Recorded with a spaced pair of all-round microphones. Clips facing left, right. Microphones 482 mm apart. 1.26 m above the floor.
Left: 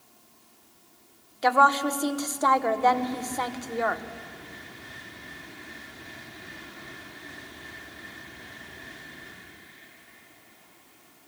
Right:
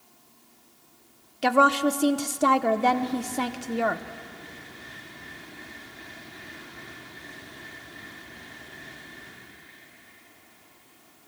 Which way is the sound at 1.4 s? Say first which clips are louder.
Right 4 dB; 50° right (ahead or behind).